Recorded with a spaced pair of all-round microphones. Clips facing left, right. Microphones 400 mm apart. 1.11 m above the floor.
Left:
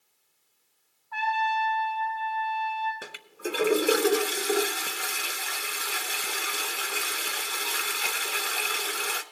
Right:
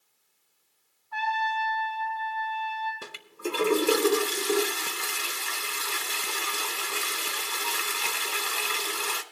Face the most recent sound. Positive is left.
turn(degrees=-10)  # may be behind; listen again after turning